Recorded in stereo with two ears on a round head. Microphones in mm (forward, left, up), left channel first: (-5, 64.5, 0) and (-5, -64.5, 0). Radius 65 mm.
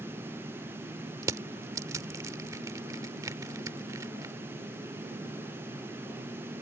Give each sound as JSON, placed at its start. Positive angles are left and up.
{"t": 1.2, "sound": "crushing", "side_deg": -25}